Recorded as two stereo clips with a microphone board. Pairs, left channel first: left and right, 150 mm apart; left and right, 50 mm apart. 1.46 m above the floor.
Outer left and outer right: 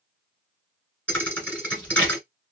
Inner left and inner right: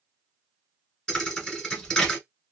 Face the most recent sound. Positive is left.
turn(degrees=10)  # may be behind; listen again after turning